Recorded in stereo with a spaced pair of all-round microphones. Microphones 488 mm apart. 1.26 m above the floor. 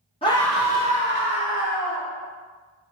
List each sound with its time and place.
0.2 s a scream: 10° left (ahead or behind), 0.6 m; by 2.1 s 45° right (ahead or behind), 0.9 m